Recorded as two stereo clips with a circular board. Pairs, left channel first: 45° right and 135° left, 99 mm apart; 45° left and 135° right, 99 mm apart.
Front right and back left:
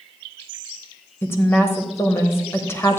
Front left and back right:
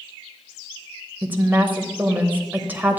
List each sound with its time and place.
1.2 s a woman speaking: 80° right, 1.0 m